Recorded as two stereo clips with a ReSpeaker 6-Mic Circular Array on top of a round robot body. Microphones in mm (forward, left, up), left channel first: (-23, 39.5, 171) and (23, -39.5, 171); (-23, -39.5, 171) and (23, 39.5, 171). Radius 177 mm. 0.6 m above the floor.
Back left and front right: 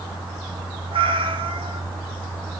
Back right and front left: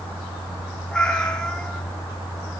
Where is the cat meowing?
40° right, 3 m.